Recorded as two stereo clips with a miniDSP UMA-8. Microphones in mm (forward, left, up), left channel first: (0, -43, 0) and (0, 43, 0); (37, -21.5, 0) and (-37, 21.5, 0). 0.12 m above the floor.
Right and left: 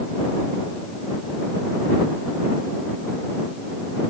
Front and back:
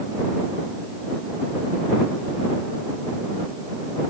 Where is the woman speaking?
No woman speaking in this recording.